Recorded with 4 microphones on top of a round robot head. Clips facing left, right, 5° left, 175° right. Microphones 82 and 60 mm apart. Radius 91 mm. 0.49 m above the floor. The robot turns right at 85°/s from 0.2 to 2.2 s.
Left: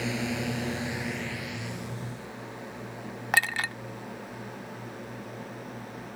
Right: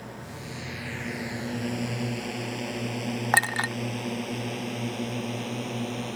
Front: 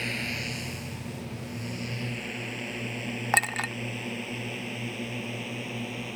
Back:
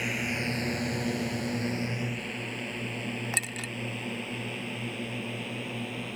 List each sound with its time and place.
0.0 s a drone: 105° left; by 6.2 s 85° right
3.3 s a clink: 35° right